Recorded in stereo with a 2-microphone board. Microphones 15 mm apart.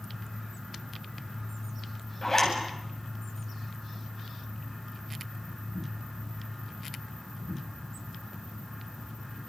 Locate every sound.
2.2 s a zipper: 25° left (ahead or behind), 8.5 m